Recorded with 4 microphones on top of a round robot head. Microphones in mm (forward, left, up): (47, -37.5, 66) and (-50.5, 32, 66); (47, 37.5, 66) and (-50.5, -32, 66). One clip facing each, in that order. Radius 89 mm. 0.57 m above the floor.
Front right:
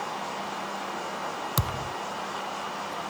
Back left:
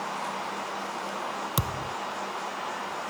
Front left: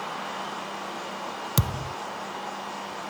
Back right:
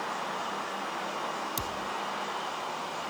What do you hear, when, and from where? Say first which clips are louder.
1.6 s a thud: front right 1 dB, front left 4 dB; 60° left